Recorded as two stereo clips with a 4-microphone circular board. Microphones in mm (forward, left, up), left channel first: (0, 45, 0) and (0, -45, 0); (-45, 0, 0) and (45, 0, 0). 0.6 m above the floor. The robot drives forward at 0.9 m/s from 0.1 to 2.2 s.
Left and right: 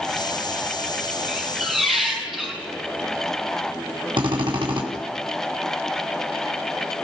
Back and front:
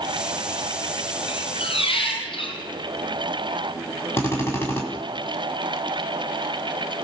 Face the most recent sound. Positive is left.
turn(degrees=-115)